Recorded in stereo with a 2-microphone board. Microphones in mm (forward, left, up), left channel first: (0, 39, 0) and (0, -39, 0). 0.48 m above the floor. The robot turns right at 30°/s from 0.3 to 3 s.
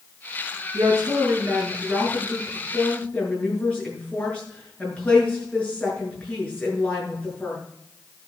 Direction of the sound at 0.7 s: 50° right.